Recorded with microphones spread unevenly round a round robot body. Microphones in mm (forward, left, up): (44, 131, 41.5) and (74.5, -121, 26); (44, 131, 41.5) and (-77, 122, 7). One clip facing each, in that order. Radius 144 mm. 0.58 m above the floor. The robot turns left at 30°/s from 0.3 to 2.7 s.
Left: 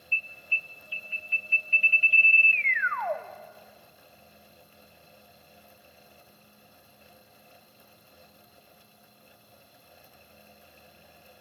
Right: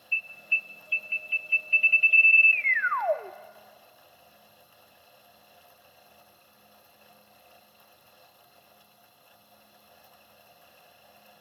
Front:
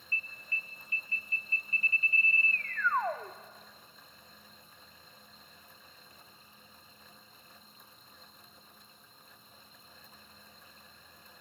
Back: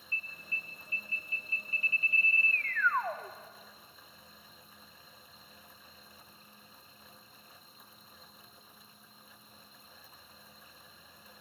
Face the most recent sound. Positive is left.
turn(degrees=-80)